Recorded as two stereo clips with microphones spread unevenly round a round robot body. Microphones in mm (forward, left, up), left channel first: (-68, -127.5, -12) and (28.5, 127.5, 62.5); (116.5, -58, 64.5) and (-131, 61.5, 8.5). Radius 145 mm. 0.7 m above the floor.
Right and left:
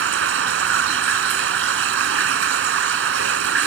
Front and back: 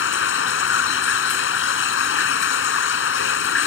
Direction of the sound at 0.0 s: 20° left.